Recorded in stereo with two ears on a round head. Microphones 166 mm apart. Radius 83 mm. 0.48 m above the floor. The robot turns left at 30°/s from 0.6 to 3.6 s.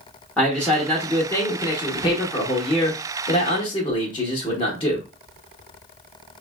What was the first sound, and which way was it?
A man speaking, 5° left (ahead or behind).